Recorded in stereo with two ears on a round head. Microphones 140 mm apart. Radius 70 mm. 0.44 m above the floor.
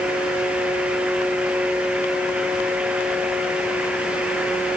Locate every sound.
Only background noise.